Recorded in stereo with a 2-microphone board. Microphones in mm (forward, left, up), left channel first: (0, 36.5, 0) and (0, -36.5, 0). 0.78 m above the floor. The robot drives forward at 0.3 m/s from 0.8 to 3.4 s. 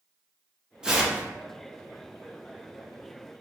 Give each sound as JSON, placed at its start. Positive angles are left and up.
{"t": 0.8, "sound": "tearing paper", "side_deg": -10, "distance_m": 0.5}